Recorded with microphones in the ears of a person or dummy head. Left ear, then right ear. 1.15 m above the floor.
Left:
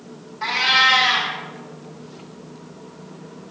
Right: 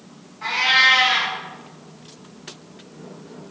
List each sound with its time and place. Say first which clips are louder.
0.4 s a cat meowing: even; 30° left (ahead or behind), 1.5 m